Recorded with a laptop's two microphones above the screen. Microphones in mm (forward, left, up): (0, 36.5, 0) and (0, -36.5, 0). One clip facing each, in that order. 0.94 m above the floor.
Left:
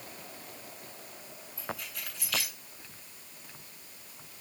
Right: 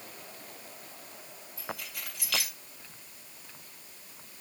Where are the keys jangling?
60° right (ahead or behind), 6.5 m.